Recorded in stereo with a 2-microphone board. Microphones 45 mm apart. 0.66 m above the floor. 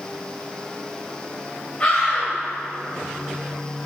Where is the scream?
25° left (ahead or behind), 4 m.